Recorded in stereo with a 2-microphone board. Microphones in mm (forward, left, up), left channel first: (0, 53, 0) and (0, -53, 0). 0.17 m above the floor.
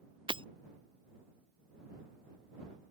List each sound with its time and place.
0.3 s breaking glass: 55° right (ahead or behind)